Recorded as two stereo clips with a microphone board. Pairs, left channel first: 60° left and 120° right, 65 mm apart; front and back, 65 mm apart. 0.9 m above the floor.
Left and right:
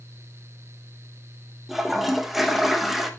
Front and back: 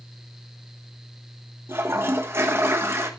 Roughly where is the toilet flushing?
Behind left.